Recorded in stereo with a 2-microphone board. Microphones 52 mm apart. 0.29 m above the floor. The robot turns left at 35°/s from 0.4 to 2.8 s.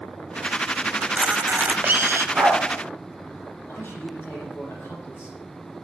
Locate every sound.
1.0 s a camera shutter: 30° right, 0.6 m; by 2.2 s 70° right, 0.6 m
2.4 s a dog barking: 30° right (ahead or behind), 7 m; by 2.6 s 40° right (ahead or behind), 7 m
3.7 s a man speaking: 45° left (ahead or behind), 8.5 m